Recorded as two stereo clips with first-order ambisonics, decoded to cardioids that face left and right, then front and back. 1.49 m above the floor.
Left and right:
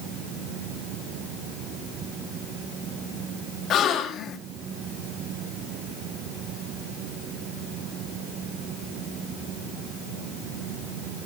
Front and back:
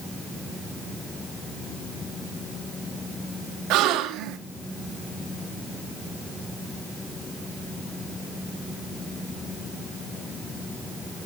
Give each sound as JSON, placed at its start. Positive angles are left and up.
{"t": 3.7, "sound": "a gasp", "azimuth_deg": 145, "distance_m": 1.2}